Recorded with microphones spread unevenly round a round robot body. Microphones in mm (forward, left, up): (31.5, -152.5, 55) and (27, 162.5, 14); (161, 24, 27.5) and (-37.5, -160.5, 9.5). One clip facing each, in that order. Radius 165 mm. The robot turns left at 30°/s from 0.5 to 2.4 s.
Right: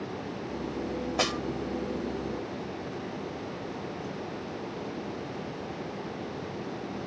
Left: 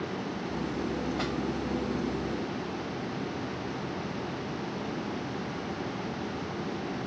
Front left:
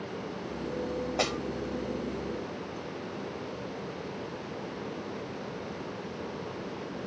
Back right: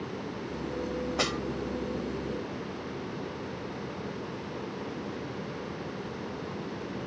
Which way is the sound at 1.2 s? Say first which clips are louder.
Right 1 dB, front left 1 dB; 70° right.